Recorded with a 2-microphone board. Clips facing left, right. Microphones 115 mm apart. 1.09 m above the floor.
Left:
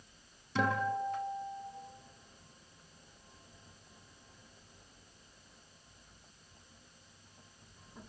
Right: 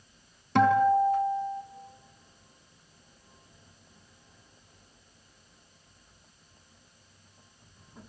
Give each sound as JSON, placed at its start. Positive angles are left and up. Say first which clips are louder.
{"t": 0.6, "sound": "a guitar", "louder": "right 11 dB", "side_deg": -65, "distance_m": 3.5}